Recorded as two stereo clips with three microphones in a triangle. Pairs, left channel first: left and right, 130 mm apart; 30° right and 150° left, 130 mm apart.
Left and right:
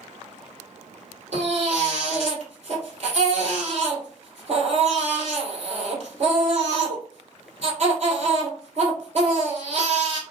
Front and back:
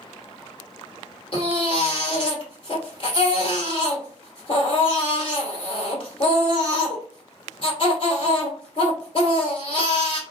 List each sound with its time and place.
1.3 s a baby crying: 70° right, 1.7 m